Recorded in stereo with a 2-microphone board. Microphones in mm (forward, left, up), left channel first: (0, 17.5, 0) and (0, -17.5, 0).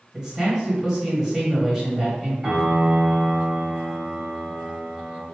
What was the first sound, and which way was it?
A man speaking, 15° right (ahead or behind).